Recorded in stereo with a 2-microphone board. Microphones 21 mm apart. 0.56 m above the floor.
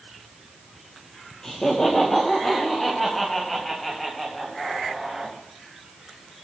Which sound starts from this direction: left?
Laughter, at 1.4 s.